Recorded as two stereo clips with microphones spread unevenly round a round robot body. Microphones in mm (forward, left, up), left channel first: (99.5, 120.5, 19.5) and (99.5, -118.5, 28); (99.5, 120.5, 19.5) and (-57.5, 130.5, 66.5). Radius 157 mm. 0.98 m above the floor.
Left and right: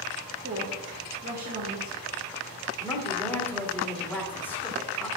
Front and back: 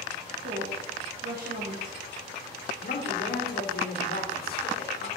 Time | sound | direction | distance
0.4 | a woman speaking | 140° right | 1.2 m
2.8 | a woman speaking | 10° left | 2.5 m